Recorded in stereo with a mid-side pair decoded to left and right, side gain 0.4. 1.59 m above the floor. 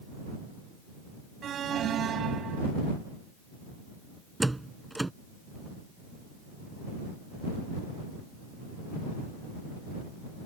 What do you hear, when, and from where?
1.4 s an alarm: 65° right
4.4 s a door slam: 15° right